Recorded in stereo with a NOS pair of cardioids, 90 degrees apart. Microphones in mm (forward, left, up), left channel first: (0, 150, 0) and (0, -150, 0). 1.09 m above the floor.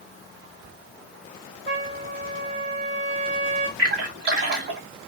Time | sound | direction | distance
1.7 | a trumpet | 40° right | 0.9 m
3.8 | a splash | 50° right | 1.3 m